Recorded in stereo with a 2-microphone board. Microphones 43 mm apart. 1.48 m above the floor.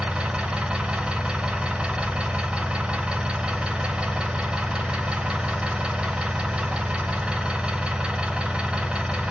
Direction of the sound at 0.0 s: 20° right (ahead or behind).